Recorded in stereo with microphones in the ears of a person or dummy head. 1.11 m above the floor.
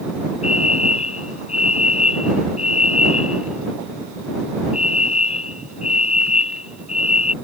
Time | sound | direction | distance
0.4 | a fire alarm | 40° left (ahead or behind) | ?